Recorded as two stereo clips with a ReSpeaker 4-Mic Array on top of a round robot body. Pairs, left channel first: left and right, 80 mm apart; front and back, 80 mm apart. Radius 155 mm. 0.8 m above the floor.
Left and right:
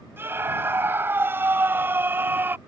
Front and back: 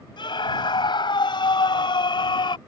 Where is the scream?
25° right.